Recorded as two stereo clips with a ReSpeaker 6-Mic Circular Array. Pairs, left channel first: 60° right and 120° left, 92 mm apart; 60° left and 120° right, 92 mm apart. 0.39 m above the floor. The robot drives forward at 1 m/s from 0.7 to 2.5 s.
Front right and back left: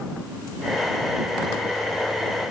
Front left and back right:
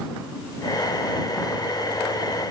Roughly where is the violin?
I don't hear a violin.